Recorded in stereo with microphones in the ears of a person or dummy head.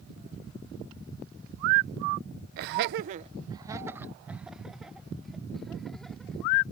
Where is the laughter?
50° right (ahead or behind); by 6.5 s 5° left (ahead or behind).